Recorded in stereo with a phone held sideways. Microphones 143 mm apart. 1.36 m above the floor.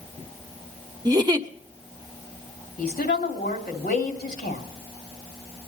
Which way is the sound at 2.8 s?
85° left.